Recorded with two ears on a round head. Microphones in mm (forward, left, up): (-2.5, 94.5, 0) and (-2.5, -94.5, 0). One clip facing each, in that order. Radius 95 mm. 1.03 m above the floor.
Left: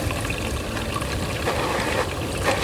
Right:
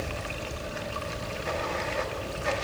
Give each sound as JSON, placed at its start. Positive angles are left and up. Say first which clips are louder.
{"t": 0.0, "sound": "running water", "louder": "left 7 dB", "side_deg": 75, "distance_m": 0.9}